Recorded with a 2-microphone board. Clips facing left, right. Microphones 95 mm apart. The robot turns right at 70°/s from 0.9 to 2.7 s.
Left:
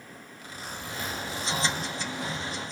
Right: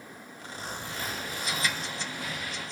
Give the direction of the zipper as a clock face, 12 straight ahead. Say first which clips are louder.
Right 1 dB; 4 o'clock.